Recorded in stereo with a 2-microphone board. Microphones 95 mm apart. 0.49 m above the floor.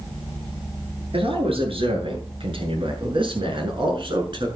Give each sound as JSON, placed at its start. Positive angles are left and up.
{"t": 1.1, "sound": "a man speaking", "side_deg": -75, "distance_m": 8.5}